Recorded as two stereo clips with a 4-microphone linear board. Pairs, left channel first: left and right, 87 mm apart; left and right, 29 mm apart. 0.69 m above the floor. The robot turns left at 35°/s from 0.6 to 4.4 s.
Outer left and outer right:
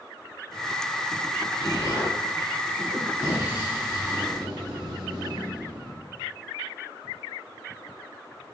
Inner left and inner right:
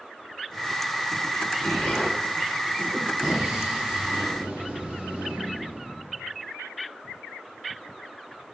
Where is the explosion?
55° left, 3.5 m; by 6.1 s 45° right, 3.5 m.